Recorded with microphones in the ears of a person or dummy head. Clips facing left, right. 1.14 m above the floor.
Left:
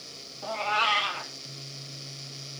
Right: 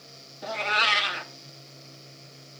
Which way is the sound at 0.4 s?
25° right (ahead or behind).